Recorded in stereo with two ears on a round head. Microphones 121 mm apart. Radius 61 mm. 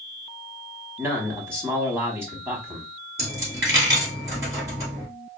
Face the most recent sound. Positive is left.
turn(degrees=-20)  # may be behind; listen again after turning